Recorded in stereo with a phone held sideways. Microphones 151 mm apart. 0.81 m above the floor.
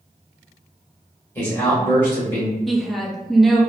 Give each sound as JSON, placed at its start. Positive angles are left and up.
{"t": 1.4, "sound": "a man speaking", "side_deg": 15, "distance_m": 1.4}
{"t": 2.7, "sound": "a woman speaking", "side_deg": 0, "distance_m": 0.5}